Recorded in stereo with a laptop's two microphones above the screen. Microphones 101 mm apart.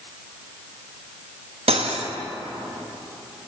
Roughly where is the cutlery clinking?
Right.